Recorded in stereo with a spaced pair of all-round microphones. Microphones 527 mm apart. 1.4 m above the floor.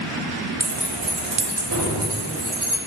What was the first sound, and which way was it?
Keys jangling, 30° right (ahead or behind).